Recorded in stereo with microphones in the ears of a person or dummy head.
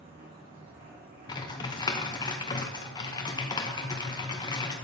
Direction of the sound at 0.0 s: 40° right (ahead or behind).